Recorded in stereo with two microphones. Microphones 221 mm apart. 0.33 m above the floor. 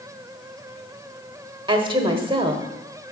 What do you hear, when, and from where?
1.7 s a woman speaking: 20° right (ahead or behind), 0.9 m